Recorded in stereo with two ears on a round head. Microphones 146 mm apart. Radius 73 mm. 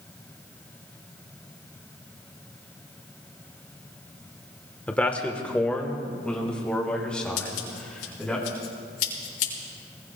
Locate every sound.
4.9 s a man speaking: 10° left (ahead or behind), 1.1 m; by 8.4 s 5° left (ahead or behind), 3.5 m
7.4 s scissors: 80° left, 4.5 m